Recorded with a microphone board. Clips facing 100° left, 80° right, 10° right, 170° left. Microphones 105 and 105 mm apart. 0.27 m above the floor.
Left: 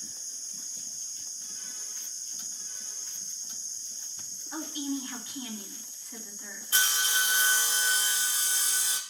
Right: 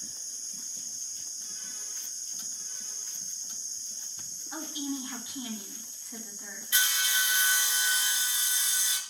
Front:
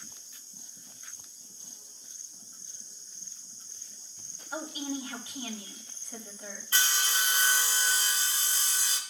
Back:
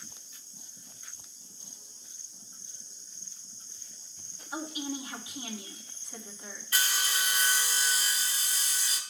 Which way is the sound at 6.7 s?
50° left.